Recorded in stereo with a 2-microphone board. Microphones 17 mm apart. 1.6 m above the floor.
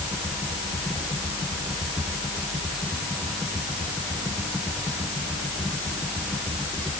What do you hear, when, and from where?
Only background noise.